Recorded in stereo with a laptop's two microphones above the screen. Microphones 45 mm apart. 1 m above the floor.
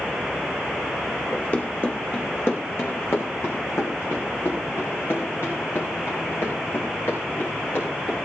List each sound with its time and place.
1.3 s running footsteps: 40° left (ahead or behind), 2.5 m; by 8.2 s 60° left (ahead or behind), 8 m